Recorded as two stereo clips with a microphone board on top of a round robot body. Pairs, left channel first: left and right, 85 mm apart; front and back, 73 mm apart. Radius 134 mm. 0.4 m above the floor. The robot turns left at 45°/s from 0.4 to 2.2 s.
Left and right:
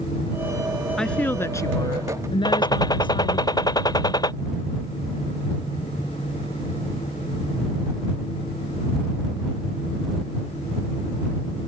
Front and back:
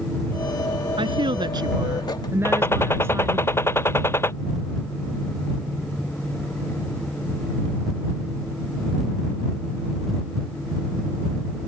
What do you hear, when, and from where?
1.0 s a woman speaking: 175° left; by 3.5 s 120° left
2.5 s a gunshot: 55° left